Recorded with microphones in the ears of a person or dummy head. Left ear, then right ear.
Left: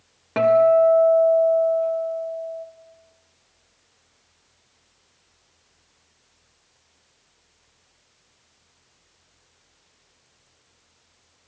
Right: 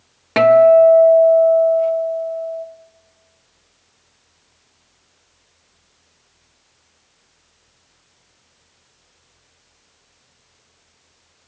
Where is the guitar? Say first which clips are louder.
Right 6 dB; 30° right (ahead or behind), 1.0 m.